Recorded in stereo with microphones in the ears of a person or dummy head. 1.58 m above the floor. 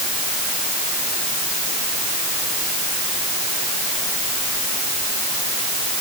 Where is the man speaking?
No man speaking in this recording.